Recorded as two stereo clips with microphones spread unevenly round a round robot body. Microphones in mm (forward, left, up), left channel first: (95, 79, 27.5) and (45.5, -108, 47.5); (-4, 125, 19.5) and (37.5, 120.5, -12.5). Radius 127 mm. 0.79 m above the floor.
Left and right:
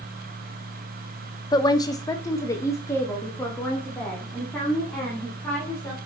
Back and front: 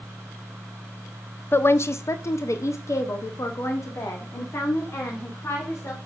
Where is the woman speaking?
95° left, 0.6 m; by 6.0 s 160° left, 2.5 m.